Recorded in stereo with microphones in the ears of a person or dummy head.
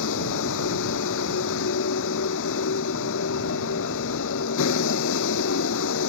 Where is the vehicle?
65° left (ahead or behind).